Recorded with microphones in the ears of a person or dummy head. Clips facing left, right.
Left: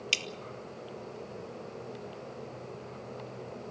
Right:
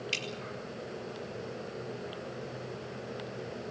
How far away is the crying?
No crying in this recording.